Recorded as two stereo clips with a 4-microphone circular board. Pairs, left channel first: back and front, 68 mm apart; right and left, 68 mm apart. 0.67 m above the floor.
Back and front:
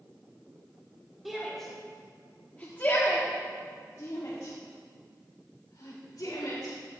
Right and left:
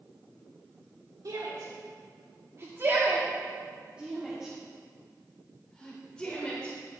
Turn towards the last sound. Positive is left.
turn(degrees=-165)